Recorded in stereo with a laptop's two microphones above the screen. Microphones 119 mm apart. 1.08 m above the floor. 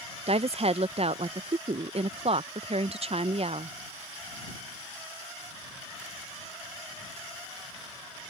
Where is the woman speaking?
55° right (ahead or behind).